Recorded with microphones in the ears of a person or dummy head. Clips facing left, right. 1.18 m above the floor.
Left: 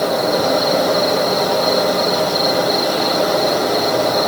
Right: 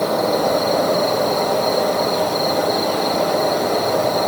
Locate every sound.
0.0 s an insect: 10° left (ahead or behind), 1.5 m